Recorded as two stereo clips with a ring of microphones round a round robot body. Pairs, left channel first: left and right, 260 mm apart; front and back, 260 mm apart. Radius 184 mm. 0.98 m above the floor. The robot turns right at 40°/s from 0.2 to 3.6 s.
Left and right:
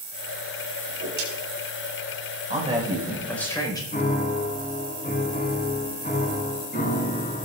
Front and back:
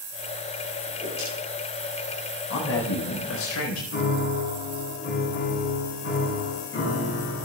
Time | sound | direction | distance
0.8 | a whoosh | 90° right | 4 m
2.5 | a man speaking | 30° right | 4.5 m
3.9 | a piano | 35° left | 5 m